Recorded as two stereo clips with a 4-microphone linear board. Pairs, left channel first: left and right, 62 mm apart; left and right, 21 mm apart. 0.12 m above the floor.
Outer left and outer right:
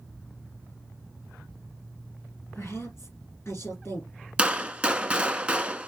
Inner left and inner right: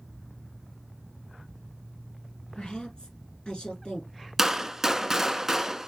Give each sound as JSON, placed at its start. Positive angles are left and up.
{"t": 2.5, "sound": "a woman speaking", "side_deg": 50, "distance_m": 3.5}
{"t": 4.4, "sound": "a gunshot", "side_deg": -15, "distance_m": 0.5}